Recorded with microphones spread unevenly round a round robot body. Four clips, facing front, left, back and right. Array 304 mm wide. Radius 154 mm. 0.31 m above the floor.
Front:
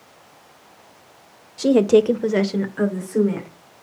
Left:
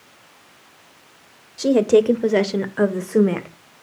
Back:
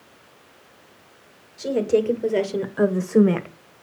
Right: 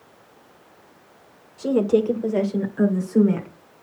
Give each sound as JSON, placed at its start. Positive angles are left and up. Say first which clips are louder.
{"t": 1.6, "sound": "a woman speaking", "louder": "left 4 dB, front 6 dB", "azimuth_deg": 30, "distance_m": 1.5}